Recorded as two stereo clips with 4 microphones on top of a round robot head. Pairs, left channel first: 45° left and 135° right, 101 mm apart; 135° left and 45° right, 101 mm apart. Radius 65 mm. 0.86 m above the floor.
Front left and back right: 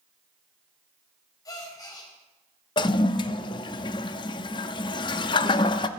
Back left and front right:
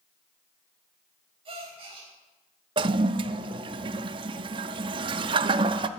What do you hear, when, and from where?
1.4 s a gasp: 10° right, 4 m
2.8 s a toilet flushing: straight ahead, 0.5 m